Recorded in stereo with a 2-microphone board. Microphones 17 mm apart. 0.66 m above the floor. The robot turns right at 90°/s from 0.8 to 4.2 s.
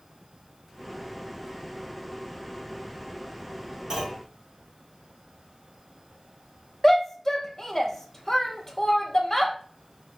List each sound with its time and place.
3.9 s a clunk: 30° right (ahead or behind), 1.8 m; by 4.3 s 10° right (ahead or behind), 1.8 m
6.8 s a shout: 20° left (ahead or behind), 0.6 m